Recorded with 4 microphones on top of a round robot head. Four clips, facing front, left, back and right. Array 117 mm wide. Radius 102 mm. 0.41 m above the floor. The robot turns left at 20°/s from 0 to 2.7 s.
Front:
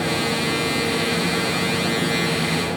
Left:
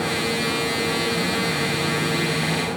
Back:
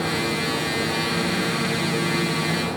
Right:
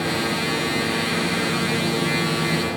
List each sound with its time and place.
Only background noise.